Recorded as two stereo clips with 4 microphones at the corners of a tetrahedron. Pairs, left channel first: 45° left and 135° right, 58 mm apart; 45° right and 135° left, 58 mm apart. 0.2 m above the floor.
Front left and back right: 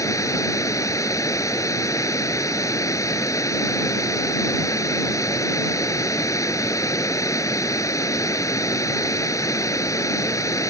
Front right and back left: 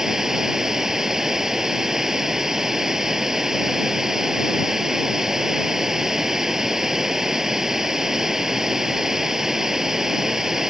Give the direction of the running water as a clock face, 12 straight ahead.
10 o'clock.